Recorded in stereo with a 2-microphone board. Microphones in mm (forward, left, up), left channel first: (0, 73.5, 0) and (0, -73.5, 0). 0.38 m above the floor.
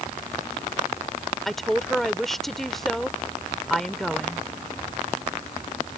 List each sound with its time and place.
1.4 s a woman speaking: centre (ahead or behind)